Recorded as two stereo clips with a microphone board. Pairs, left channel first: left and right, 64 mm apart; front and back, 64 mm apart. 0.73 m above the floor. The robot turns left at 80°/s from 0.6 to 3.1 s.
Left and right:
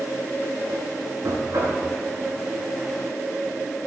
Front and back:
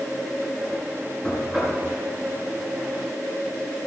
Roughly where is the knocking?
Right.